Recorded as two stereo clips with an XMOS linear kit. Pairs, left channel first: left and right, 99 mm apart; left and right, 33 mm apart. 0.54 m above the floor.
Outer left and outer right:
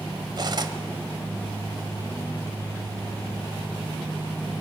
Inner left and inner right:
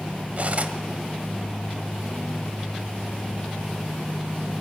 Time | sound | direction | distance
0.4 | cutlery clinking | 45° right (ahead or behind) | 1.4 m